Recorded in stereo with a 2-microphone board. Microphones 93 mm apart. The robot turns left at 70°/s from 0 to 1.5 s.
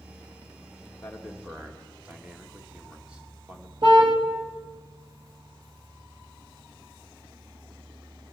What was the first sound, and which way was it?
A man speaking, 20° left.